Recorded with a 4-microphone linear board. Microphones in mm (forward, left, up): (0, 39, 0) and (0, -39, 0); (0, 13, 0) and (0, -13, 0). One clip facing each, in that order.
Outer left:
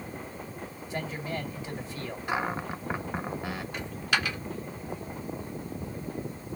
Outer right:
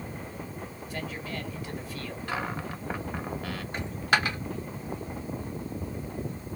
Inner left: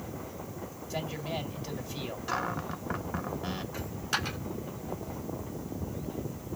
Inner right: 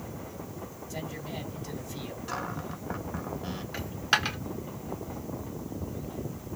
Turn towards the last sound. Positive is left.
turn(degrees=-40)  # may be behind; listen again after turning